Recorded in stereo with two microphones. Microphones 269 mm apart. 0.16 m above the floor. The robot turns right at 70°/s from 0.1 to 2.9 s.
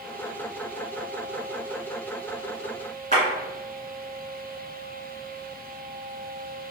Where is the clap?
30° right (ahead or behind), 1.8 m.